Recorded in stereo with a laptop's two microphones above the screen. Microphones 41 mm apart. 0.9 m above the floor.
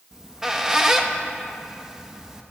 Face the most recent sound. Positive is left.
turn(degrees=-15)  # may be behind; listen again after turning